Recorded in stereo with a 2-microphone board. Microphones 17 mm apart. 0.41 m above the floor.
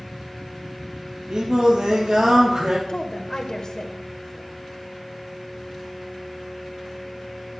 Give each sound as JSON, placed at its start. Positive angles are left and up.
{"t": 1.3, "sound": "singing", "side_deg": -65, "distance_m": 3.0}
{"t": 2.9, "sound": "a woman speaking", "side_deg": 45, "distance_m": 1.6}